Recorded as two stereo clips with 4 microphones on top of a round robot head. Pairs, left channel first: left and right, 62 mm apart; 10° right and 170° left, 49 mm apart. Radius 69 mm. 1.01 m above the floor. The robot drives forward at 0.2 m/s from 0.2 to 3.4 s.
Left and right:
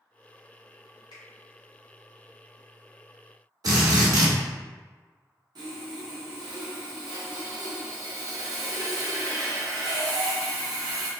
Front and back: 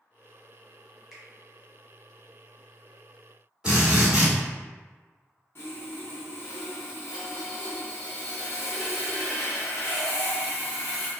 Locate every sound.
1.1 s a finger snap: 90° left, 1.8 m
3.6 s a drill: 110° right, 1.6 m
5.5 s sawing: 70° right, 0.9 m